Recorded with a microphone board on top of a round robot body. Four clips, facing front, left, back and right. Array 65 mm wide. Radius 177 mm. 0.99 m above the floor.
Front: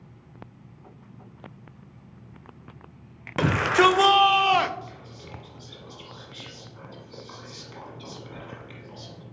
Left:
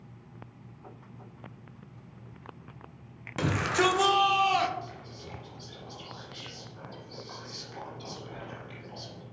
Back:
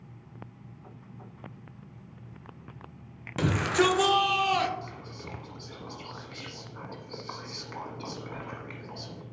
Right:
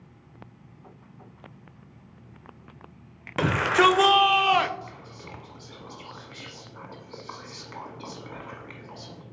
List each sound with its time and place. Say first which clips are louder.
3.4 s a shout: right 6 dB, front 5 dB; 45° right, 0.8 m
4.8 s whispering: right 1 dB, back 1 dB; 140° right, 1.3 m